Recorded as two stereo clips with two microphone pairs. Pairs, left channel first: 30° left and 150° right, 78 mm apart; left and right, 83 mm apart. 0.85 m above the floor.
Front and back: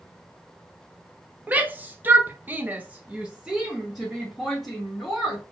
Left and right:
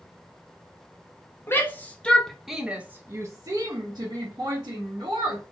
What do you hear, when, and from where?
1.5 s a shout: 145° left, 0.8 m; by 5.4 s 60° right, 1.5 m